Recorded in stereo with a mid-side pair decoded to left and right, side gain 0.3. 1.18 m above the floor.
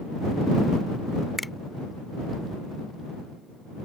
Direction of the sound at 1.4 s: 20° left.